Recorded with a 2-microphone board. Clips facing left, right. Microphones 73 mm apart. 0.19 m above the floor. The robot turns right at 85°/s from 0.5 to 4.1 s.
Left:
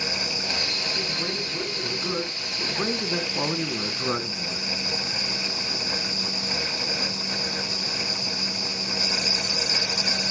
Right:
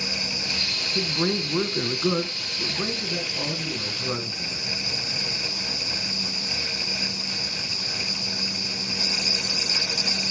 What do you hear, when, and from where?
0.9 s a man speaking: 130° right, 1.6 m; by 4.7 s 140° left, 1.6 m